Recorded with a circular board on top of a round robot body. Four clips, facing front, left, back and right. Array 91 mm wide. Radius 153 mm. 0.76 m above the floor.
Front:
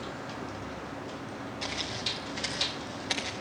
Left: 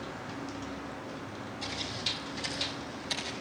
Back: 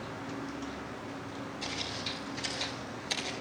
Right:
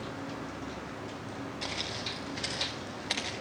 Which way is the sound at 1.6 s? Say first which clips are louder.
Even, front 2 dB; 45° right.